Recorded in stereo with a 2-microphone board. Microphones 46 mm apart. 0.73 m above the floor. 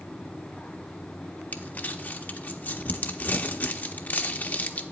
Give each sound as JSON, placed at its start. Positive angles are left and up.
{"t": 1.5, "sound": "crumpling", "side_deg": 40, "distance_m": 0.6}